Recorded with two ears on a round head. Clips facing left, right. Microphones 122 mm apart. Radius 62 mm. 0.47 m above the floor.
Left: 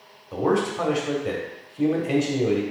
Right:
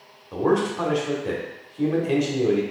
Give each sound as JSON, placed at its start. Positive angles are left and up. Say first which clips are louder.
{"t": 0.3, "sound": "a man speaking", "louder": "right 1 dB", "side_deg": 5, "distance_m": 1.0}